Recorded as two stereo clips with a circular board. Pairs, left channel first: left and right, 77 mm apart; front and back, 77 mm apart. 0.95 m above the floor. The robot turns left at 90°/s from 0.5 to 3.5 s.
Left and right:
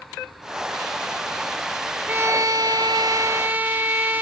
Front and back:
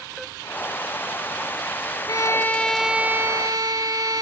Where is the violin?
25° right, 1.0 m; by 4.2 s 155° right, 1.0 m.